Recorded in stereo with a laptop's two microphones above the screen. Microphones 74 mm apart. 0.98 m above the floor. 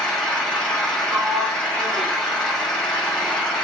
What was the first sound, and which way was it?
An engine running, 10° left (ahead or behind).